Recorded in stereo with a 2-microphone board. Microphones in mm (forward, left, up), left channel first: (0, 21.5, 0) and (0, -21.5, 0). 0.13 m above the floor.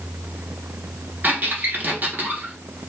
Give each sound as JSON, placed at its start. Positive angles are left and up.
{"t": 1.2, "sound": "a squeak", "side_deg": -45, "distance_m": 0.9}